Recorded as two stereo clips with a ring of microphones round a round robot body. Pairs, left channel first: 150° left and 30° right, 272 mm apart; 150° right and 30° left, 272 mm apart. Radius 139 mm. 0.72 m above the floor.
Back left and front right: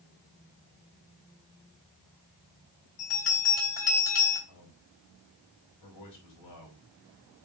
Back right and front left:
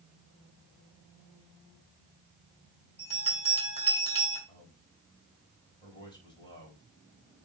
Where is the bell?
140° left, 4 m.